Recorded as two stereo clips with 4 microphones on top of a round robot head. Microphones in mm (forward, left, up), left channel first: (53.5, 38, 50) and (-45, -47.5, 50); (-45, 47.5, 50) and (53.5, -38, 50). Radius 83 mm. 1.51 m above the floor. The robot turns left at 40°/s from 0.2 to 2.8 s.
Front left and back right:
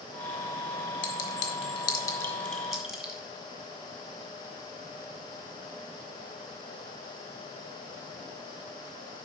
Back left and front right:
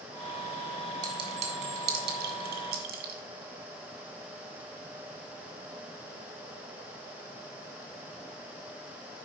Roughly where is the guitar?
No guitar in this recording.